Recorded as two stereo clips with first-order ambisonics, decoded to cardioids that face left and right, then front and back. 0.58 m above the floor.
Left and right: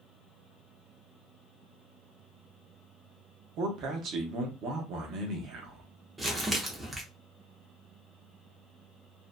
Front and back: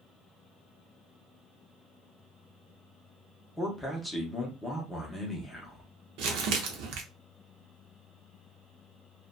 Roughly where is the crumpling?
Behind.